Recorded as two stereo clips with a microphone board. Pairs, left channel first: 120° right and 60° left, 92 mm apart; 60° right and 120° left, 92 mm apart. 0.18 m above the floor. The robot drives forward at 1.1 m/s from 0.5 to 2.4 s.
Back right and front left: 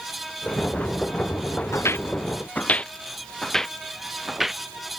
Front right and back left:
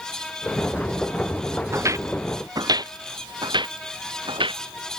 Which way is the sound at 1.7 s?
Straight behind.